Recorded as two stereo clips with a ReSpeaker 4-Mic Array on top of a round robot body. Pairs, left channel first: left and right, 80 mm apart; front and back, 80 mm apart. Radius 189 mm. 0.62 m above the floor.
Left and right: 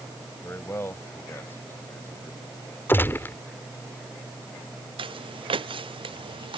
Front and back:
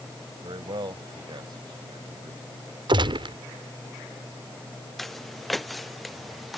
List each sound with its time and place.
0.4 s a man speaking: 150° left
2.9 s a gunshot: 155° left
5.0 s footsteps: 90° right